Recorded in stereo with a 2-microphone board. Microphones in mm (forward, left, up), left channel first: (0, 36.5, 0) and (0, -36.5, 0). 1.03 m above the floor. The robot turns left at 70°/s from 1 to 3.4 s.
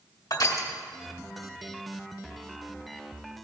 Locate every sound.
0.3 s crushing: 50° left (ahead or behind), 1.9 m